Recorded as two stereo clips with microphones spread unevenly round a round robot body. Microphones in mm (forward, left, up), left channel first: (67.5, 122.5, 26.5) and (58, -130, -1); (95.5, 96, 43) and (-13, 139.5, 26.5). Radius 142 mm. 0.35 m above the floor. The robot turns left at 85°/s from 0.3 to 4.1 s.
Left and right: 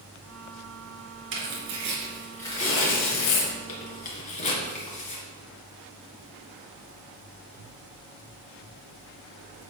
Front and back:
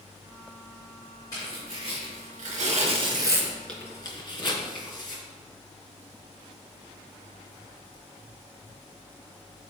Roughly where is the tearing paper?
Right.